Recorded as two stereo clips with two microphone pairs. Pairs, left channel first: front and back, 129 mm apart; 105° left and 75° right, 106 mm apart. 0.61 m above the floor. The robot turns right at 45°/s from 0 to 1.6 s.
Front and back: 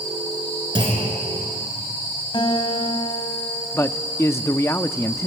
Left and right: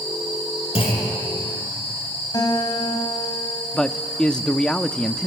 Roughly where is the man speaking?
Ahead left.